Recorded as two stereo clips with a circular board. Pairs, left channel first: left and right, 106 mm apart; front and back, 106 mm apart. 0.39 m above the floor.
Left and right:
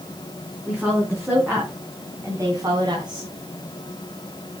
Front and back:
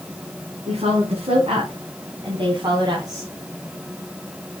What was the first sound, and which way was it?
A woman speaking, 175° right.